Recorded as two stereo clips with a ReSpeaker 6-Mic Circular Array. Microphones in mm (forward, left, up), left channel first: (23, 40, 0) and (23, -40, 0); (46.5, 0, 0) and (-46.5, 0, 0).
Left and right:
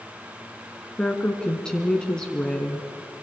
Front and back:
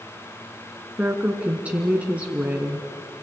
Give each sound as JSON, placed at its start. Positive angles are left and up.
{"t": 1.0, "sound": "a woman speaking", "azimuth_deg": 145, "distance_m": 1.6}